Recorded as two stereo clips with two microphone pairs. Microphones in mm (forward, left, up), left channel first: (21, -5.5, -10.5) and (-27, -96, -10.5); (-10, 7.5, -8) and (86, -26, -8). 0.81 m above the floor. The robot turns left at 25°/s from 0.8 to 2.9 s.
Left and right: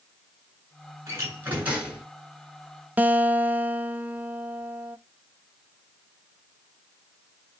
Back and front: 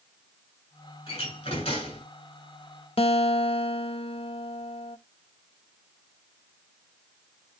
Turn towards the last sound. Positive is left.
turn(degrees=175)